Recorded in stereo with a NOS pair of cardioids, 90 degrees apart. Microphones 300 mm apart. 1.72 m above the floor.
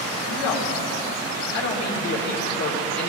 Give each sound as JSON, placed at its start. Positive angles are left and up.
{"t": 0.3, "sound": "a man speaking", "azimuth_deg": 55, "distance_m": 2.0}